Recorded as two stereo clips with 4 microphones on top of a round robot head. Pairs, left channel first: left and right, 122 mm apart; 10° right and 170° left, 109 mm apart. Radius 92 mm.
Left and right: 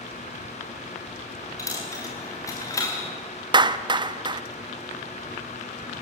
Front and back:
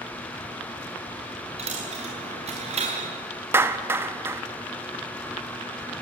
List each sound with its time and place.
1.6 s a dropped coin: 155° left, 4 m
3.5 s a clap: 125° right, 0.9 m